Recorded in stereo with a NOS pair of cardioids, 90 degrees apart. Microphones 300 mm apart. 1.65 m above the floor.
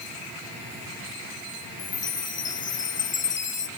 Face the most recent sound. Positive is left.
turn(degrees=40)